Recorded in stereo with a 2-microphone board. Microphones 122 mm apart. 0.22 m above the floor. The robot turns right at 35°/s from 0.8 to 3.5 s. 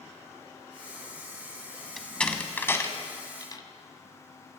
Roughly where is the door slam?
Centre.